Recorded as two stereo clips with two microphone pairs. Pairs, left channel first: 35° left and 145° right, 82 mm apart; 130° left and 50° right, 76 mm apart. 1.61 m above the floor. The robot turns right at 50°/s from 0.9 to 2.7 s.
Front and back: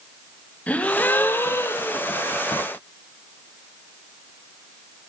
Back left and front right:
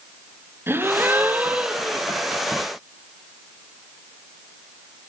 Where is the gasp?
20° right, 1.6 m; by 2.0 s 35° left, 1.6 m.